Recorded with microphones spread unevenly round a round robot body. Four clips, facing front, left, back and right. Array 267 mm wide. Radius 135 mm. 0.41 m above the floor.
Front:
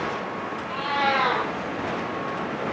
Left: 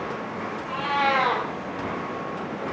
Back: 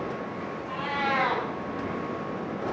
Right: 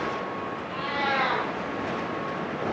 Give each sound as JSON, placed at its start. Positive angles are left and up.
{"t": 0.7, "sound": "a cat meowing", "azimuth_deg": 80, "distance_m": 4.5}